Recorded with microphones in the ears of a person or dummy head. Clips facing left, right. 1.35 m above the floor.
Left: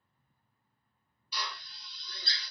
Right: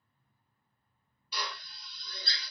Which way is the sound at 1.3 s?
40° right (ahead or behind).